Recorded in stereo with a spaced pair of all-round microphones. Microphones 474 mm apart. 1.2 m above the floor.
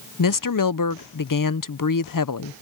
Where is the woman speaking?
45° left (ahead or behind).